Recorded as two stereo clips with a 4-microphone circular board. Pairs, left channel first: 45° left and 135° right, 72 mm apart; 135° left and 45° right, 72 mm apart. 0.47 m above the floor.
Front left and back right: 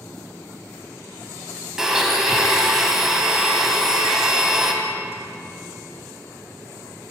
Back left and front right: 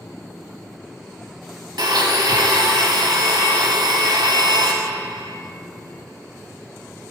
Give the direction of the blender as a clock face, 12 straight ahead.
2 o'clock.